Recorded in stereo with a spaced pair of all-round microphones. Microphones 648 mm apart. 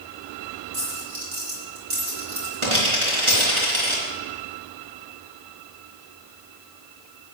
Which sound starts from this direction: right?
A dropped coin, at 0.7 s.